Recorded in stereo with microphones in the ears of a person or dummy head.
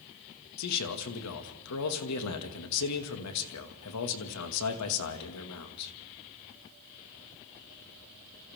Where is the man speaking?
85° left, 2 m.